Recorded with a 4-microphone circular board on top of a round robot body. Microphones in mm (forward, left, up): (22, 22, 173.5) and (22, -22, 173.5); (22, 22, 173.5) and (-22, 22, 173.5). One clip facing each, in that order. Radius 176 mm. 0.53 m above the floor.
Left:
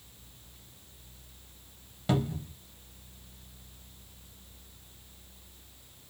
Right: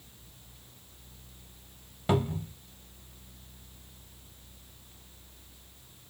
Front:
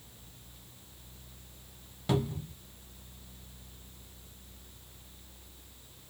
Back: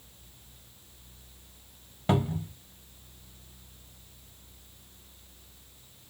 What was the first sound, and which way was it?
A cupboard door, 145° right.